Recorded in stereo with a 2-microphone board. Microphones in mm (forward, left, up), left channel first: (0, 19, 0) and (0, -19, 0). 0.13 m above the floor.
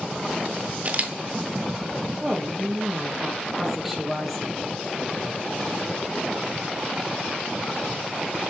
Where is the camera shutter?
40° right (ahead or behind), 0.8 m.